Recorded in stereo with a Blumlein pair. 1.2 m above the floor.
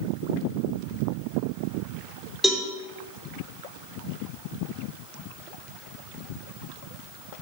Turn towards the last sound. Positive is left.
turn(degrees=5)